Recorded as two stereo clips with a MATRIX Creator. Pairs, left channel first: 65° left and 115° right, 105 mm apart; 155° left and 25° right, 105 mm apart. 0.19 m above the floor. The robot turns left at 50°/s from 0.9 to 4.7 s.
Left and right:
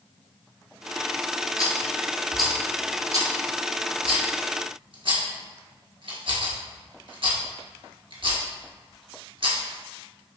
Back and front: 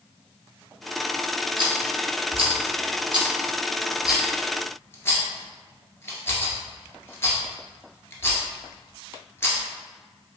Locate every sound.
1.6 s a rattle: 15° left, 1.1 m; by 9.6 s 140° right, 1.1 m